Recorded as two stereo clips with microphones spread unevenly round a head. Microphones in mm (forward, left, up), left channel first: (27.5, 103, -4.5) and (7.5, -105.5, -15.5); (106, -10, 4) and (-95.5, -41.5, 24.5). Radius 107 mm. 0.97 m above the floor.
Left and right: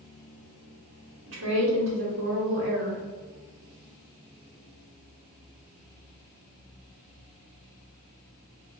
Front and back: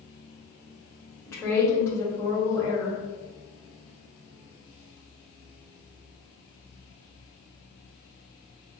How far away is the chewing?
No chewing in this recording.